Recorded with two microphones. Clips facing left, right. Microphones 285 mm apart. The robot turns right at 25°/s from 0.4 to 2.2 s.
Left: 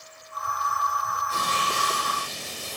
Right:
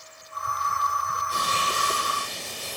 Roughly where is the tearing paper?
Centre.